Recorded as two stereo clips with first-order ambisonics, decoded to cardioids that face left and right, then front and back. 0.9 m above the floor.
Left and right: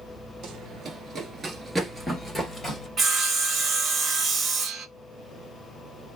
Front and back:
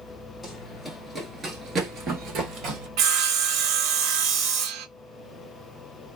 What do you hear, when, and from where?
0.4 s running footsteps: 80° right, 1.1 m; by 2.9 s 160° left, 1.3 m
3.0 s sawing: 155° right, 0.6 m